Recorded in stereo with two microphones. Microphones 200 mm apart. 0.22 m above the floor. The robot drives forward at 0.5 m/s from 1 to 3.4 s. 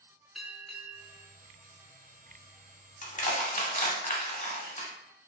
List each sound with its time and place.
0.3 s a bell: centre (ahead or behind), 0.6 m
3.0 s crushing: 40° left (ahead or behind), 0.7 m